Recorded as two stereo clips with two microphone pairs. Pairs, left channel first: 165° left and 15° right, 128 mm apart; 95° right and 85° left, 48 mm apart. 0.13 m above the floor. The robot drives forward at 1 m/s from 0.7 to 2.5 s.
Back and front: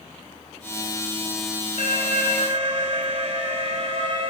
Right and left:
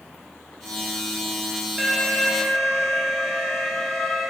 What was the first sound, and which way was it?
An alarm, straight ahead.